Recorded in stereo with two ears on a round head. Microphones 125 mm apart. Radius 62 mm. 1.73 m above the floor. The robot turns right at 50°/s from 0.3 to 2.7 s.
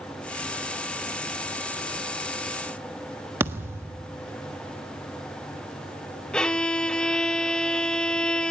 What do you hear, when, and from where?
3.4 s a thud: 20° right (ahead or behind), 1.4 m
6.3 s a violin: 5° left (ahead or behind), 1.0 m